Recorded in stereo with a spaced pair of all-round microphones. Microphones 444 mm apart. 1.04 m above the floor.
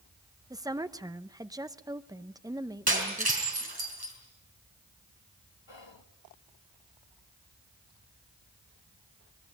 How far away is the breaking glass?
About 5 m.